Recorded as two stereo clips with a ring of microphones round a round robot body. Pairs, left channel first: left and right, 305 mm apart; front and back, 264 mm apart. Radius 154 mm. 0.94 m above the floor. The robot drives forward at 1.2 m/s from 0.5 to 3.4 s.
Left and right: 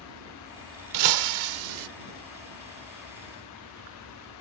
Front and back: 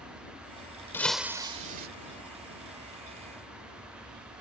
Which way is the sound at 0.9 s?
80° right.